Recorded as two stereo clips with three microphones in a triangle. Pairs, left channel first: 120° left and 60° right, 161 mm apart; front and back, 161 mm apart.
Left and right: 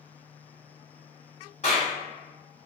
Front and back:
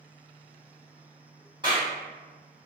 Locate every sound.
1.6 s a clap: 135° left, 1.7 m